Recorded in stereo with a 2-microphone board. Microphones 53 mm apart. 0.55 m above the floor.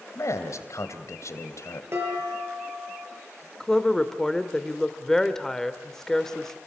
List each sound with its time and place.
0.1 s a man speaking: 65° left (ahead or behind), 3 m
1.9 s dishes clattering: 50° right (ahead or behind), 8 m
3.6 s a woman speaking: 10° left (ahead or behind), 1.5 m